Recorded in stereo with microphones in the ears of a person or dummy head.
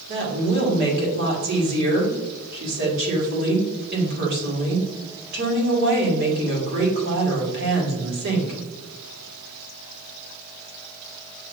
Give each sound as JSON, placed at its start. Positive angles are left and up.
{"t": 0.1, "sound": "a woman speaking", "side_deg": -50, "distance_m": 1.5}